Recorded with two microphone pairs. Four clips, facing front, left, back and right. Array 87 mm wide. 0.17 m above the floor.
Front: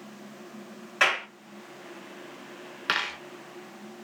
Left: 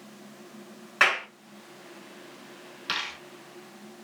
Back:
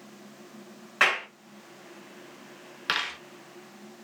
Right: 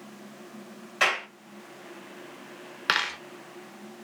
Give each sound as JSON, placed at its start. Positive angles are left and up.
{"t": 1.0, "sound": "a clap", "azimuth_deg": 110, "distance_m": 1.6}
{"t": 2.9, "sound": "a dropped coin", "azimuth_deg": -85, "distance_m": 0.7}